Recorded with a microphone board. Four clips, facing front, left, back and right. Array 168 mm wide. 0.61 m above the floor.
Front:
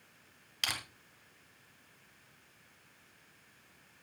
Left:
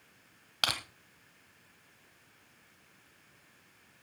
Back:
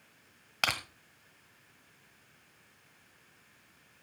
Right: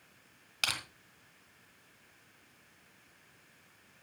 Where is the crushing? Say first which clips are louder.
Left 3 dB, back 7 dB; 155° left, 1.4 m.